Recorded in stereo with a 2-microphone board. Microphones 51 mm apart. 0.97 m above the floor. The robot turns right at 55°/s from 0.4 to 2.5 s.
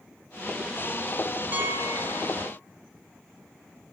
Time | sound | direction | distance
1.5 | a piano | 140° right | 1.6 m